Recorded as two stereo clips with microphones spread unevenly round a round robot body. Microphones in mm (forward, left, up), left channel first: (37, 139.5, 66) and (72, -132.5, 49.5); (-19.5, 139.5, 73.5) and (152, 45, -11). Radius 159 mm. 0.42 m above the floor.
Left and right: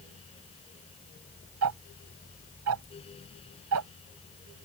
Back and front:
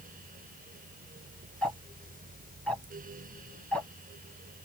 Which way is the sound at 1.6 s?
115° right.